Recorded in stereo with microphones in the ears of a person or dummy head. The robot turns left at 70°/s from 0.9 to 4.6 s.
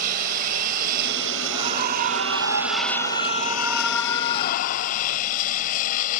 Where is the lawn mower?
50° right; by 6.2 s 50° left.